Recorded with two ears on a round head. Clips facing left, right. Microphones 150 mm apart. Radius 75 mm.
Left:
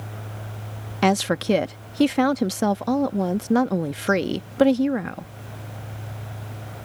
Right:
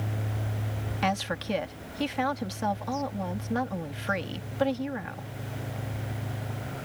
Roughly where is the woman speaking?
Left.